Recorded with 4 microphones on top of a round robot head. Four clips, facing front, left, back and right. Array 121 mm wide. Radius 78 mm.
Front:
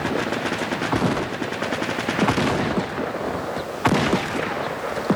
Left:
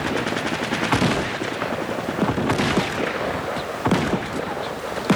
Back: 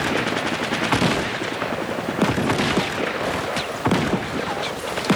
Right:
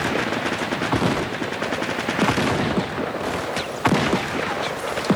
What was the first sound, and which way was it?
Only background noise.